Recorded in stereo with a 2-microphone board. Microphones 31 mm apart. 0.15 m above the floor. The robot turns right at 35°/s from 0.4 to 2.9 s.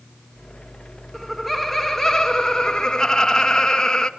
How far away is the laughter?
About 1.6 m.